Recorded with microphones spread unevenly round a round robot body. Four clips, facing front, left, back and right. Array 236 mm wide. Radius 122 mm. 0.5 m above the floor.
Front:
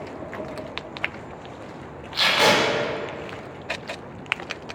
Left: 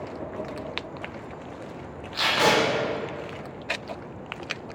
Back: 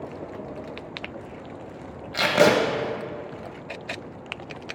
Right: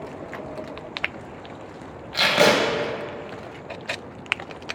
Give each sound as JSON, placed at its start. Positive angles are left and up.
{"t": 2.1, "sound": "tape being pulled", "azimuth_deg": -155, "distance_m": 0.7}